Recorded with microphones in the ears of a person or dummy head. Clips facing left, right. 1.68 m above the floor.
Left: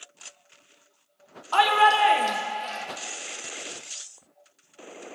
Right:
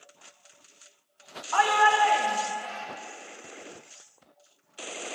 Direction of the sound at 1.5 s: 50° left (ahead or behind).